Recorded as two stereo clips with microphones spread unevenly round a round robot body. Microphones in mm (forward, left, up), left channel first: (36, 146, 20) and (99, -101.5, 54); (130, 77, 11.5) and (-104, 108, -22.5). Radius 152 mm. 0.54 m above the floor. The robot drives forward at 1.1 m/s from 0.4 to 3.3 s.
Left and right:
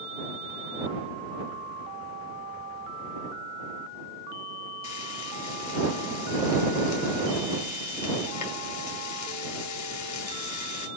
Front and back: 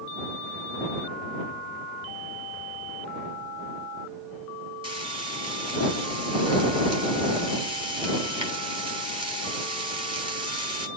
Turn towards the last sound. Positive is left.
turn(degrees=105)